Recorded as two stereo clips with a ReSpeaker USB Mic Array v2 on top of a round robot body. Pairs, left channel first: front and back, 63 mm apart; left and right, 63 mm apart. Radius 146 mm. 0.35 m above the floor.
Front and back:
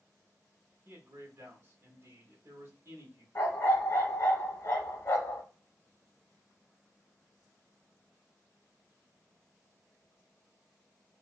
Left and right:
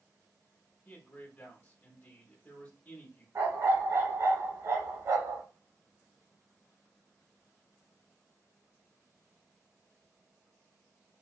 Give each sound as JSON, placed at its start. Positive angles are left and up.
{"t": 0.8, "sound": "a man speaking", "azimuth_deg": 155, "distance_m": 1.5}
{"t": 3.4, "sound": "a dog barking", "azimuth_deg": -45, "distance_m": 1.0}